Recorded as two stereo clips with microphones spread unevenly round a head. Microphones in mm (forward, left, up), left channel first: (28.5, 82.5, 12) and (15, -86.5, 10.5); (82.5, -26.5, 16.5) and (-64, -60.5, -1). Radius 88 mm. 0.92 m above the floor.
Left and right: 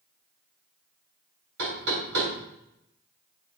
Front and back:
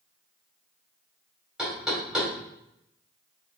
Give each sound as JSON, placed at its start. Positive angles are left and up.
{"t": 1.6, "sound": "knocking", "azimuth_deg": -80, "distance_m": 3.5}